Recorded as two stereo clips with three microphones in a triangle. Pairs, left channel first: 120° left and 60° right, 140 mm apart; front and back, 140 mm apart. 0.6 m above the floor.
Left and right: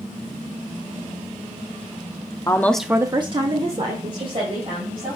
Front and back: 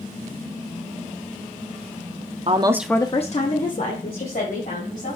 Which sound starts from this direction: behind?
A woman speaking, at 2.5 s.